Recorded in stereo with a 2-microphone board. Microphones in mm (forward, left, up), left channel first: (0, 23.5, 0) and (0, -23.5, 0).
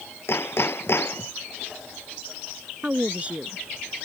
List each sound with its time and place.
0.3 s hammering: 60° left (ahead or behind)
2.8 s a woman speaking: 30° right (ahead or behind)